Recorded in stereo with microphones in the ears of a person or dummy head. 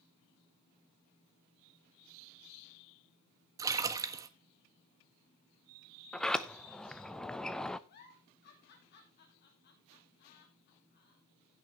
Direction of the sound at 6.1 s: 5° left (ahead or behind).